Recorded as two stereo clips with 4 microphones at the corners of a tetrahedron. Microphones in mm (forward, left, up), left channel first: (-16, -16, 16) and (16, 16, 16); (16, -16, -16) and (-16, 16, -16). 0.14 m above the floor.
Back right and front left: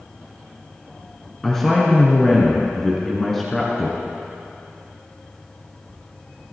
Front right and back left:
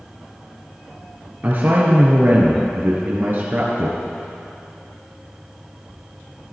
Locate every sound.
1.4 s a woman speaking: 145° left, 1.6 m